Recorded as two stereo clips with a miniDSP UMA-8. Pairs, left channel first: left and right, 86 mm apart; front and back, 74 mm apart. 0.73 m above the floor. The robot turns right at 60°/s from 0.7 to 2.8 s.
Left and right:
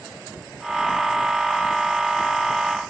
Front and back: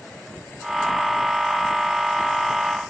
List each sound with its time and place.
Only background noise.